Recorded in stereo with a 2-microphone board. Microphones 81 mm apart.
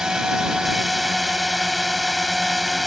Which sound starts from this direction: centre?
A drone, at 0.0 s.